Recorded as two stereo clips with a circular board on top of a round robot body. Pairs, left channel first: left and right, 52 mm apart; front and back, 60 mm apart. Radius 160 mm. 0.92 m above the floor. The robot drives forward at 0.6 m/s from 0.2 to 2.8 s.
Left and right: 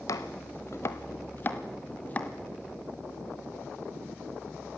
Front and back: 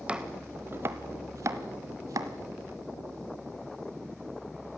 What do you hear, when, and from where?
0.1 s chopping: 110° left, 1.0 m; by 2.3 s 155° left, 1.8 m